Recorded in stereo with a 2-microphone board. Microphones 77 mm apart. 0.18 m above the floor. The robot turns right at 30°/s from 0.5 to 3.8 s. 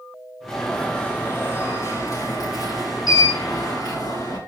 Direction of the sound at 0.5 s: 10° left.